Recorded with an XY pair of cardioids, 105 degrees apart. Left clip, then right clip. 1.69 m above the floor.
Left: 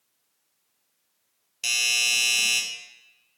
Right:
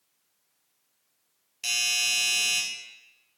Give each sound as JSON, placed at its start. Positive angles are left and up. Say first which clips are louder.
{"t": 1.6, "sound": "a doorbell", "louder": "left 3 dB", "azimuth_deg": 35, "distance_m": 0.5}